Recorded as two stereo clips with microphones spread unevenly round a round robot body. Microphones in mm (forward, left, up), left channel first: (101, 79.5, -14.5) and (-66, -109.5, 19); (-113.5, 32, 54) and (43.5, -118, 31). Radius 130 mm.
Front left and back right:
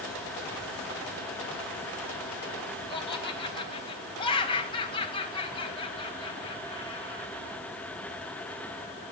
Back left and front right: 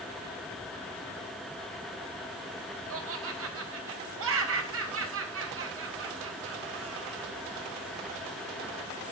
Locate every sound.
2.9 s laughter: 20° right, 3.5 m